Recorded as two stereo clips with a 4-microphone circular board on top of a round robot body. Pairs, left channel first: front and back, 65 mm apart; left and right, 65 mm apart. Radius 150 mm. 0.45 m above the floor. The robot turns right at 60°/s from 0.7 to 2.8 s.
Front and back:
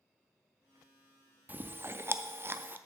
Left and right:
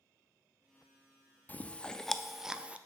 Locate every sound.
1.5 s chewing: 135° left, 0.6 m; by 2.8 s 145° right, 0.6 m